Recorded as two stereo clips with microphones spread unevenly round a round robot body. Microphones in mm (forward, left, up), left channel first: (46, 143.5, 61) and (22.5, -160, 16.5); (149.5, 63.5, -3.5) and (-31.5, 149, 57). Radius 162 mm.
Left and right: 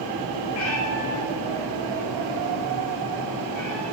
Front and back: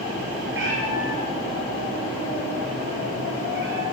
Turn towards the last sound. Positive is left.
turn(degrees=125)